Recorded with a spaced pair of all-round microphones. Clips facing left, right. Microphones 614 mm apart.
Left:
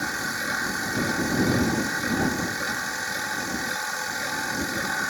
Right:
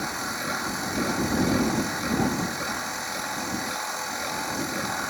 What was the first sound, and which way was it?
A machine running, 40° left (ahead or behind).